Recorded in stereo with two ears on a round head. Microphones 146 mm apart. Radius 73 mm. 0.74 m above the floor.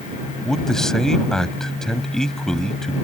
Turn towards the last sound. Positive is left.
turn(degrees=5)  # may be behind; listen again after turning